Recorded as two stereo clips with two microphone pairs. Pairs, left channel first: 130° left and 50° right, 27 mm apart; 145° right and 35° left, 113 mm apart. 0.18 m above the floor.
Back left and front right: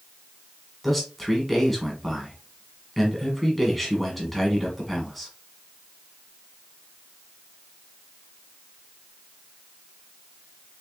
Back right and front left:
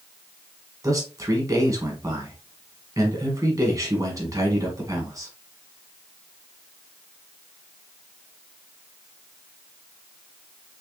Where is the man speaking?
45° left, 1.7 m.